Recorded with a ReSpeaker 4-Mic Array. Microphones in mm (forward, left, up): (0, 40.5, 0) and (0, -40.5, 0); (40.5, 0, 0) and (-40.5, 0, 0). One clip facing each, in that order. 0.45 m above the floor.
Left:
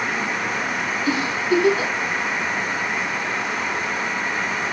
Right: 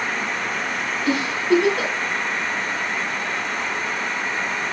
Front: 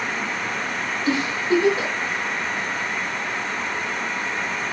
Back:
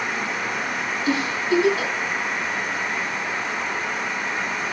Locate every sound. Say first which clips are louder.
1.1 s a giggle: right 2 dB, front 1 dB; 60° right, 4.5 m